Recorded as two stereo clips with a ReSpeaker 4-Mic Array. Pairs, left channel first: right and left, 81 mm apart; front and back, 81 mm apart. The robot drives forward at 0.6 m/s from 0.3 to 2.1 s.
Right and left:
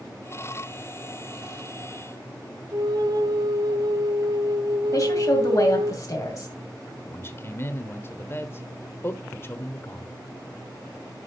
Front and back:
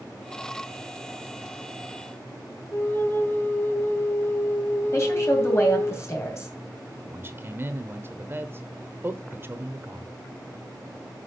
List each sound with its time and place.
2.7 s a flute: 60° left, 1.1 m
4.9 s a woman speaking: 50° right, 2.5 m
7.0 s a man speaking: 135° right, 1.1 m